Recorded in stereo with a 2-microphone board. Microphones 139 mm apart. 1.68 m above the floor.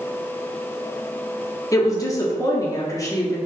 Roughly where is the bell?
No bell in this recording.